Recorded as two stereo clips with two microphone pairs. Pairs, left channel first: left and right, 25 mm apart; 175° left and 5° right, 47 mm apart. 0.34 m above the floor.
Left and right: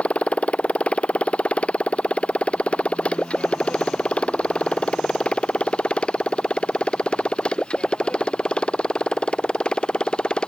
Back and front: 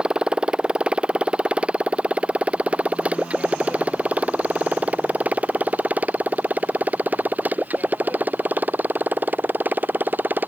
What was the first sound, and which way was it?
A motorcycle, 70° left.